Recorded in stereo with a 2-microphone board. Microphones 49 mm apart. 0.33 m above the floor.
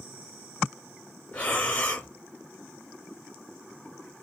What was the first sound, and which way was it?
Breathing, 35° left (ahead or behind).